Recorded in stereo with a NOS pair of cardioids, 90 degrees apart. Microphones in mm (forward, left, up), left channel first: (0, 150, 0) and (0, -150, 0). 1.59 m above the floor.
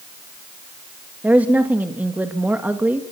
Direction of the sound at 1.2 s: 5° right.